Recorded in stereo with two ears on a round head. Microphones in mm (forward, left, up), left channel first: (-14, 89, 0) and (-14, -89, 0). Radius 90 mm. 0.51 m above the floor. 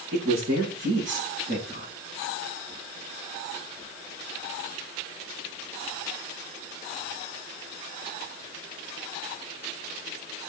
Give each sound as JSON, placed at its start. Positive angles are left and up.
{"t": 0.1, "sound": "a woman speaking", "side_deg": -70, "distance_m": 7.0}